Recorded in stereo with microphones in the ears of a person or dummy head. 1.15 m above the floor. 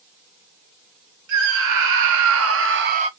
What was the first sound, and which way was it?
A scream, 65° right (ahead or behind).